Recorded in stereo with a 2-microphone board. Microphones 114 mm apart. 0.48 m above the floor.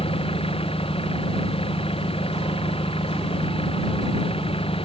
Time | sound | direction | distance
0.0 | an engine running | 55° left (ahead or behind) | ?